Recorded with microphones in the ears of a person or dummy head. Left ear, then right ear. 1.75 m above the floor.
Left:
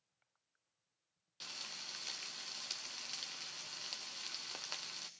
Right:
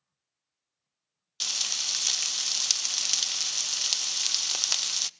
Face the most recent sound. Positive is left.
turn(degrees=-40)  # may be behind; listen again after turning